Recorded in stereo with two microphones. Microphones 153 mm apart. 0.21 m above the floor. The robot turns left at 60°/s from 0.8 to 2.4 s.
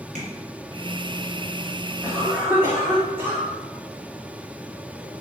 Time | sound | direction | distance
0.1 | tapping | 50° right (ahead or behind) | 1.2 m
2.0 | a cough | 10° right (ahead or behind) | 1.0 m